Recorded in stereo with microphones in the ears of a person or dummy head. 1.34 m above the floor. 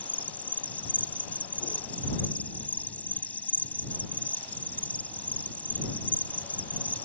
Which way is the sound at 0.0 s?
5° left (ahead or behind).